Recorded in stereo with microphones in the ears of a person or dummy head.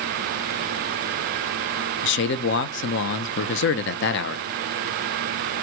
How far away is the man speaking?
About 0.5 m.